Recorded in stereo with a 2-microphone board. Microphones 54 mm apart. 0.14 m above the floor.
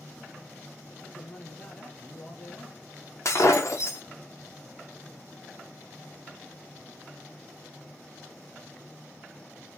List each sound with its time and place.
1.0 s a man speaking: 15° left (ahead or behind), 3.5 m
3.2 s breaking glass: 55° left (ahead or behind), 2 m